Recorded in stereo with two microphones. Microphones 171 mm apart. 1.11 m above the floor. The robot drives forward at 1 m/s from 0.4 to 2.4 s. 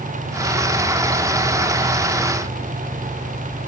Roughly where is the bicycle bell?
I don't hear a bicycle bell.